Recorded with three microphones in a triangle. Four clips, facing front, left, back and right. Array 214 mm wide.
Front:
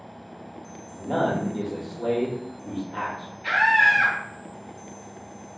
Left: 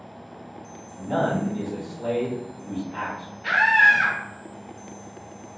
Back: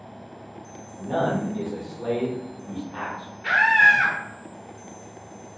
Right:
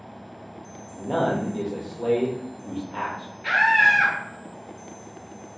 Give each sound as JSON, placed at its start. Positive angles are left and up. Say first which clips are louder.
{"t": 0.9, "sound": "a man speaking", "louder": "even, even", "azimuth_deg": -60, "distance_m": 1.3}
{"t": 3.4, "sound": "a scream", "louder": "left 1 dB, back 2 dB", "azimuth_deg": -145, "distance_m": 1.5}